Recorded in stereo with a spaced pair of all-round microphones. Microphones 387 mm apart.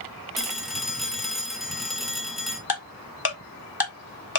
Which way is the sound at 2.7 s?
70° left (ahead or behind).